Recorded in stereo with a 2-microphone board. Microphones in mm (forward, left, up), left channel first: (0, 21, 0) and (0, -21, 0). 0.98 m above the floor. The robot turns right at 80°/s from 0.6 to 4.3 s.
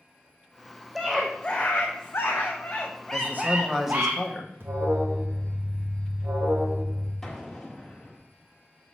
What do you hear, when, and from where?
0.9 s a scream: 10° right, 0.7 m; by 4.1 s 120° right, 0.7 m
3.1 s a man speaking: 70° right, 1.1 m; by 4.5 s 25° left, 1.1 m
4.6 s an alarm: 70° right (ahead or behind), 1.2 m
7.2 s an explosion: centre (ahead or behind), 1.5 m